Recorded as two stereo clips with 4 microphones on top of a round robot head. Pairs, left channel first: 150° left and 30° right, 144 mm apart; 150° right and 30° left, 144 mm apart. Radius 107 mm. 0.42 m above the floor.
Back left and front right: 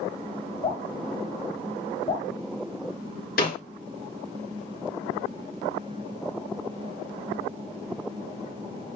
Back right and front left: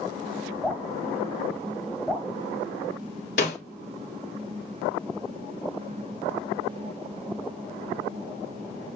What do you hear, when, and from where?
0.6 s dripping: 130° left, 1.7 m
3.4 s a snare drum: 175° left, 3 m